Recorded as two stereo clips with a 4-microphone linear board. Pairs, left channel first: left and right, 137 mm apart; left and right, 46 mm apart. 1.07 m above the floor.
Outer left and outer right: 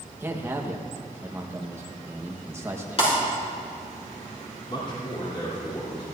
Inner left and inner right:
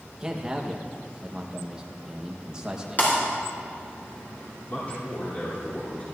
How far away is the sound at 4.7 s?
About 3.5 m.